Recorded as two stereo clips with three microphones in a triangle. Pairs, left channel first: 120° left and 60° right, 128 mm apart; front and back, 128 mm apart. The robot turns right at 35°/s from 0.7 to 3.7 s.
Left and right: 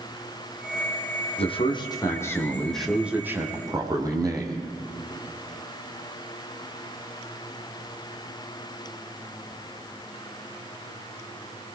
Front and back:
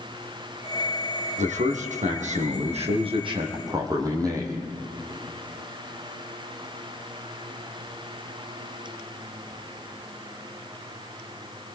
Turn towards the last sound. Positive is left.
turn(degrees=-120)